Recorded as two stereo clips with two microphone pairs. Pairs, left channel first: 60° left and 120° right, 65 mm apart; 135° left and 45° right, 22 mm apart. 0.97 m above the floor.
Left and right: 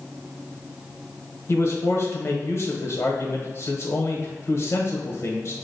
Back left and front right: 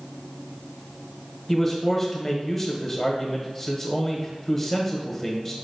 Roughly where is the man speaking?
Ahead left.